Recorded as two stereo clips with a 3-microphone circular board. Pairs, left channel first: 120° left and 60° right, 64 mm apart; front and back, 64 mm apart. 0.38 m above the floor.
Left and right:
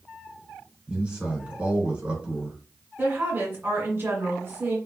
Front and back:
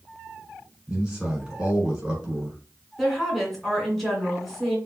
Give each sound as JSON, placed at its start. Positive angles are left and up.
{"t": 0.9, "sound": "a man speaking", "azimuth_deg": -110, "distance_m": 1.5}
{"t": 3.0, "sound": "a woman speaking", "azimuth_deg": -85, "distance_m": 1.7}